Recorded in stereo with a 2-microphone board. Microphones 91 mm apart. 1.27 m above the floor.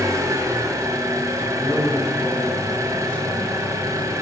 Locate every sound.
0.0 s an engine running: 40° right (ahead or behind), 2 m
1.5 s a man speaking: 20° left (ahead or behind), 6.5 m